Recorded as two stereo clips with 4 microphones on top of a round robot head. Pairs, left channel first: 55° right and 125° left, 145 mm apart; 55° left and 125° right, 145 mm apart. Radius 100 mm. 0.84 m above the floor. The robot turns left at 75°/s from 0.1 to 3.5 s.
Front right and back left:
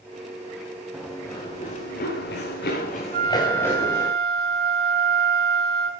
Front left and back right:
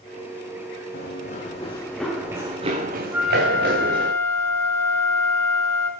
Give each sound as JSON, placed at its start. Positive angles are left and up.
{"t": 0.9, "sound": "running footsteps", "azimuth_deg": 45, "distance_m": 4.5}
{"t": 3.1, "sound": "a flute", "azimuth_deg": 160, "distance_m": 3.5}